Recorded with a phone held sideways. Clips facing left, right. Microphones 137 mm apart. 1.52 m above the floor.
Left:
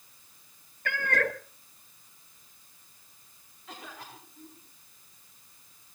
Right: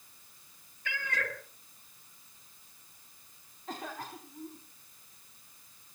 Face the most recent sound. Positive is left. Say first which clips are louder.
# right 5 dB
turn(degrees=-45)  # may be behind; listen again after turning